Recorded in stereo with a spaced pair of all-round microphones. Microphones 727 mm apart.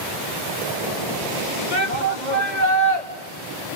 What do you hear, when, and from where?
1.7 s a shout: 75° left (ahead or behind), 2.5 m